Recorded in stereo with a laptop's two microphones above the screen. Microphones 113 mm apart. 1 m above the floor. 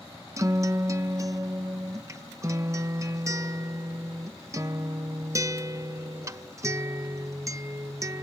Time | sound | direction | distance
0.4 | a guitar | 30° right (ahead or behind) | ?